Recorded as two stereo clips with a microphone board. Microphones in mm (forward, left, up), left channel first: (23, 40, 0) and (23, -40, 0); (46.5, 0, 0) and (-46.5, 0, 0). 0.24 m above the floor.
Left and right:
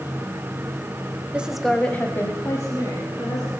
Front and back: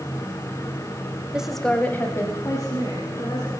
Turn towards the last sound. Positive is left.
turn(degrees=45)